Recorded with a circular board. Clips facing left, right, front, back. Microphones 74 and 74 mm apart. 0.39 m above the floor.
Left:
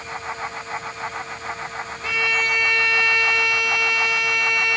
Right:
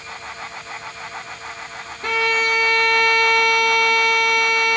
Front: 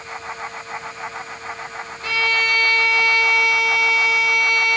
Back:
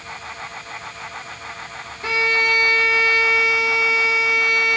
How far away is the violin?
About 3.5 m.